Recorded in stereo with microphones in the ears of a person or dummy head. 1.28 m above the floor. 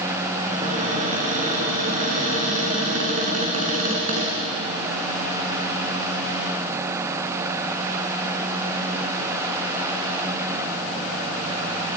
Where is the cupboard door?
40° right (ahead or behind), 6 m.